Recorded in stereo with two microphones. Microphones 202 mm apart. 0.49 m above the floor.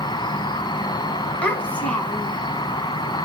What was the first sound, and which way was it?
An insect, 25° left (ahead or behind).